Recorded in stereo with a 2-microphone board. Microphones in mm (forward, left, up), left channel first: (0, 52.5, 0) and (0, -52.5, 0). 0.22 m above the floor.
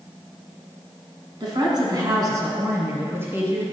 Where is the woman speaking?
50° right (ahead or behind), 2 m; by 3.6 s 20° right (ahead or behind), 2.5 m.